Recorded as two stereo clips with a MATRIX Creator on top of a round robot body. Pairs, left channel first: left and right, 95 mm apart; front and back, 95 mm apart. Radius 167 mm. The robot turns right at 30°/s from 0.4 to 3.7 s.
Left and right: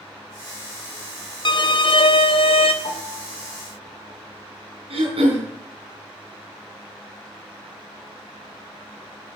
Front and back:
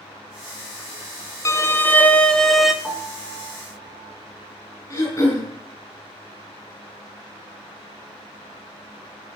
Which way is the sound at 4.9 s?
60° right.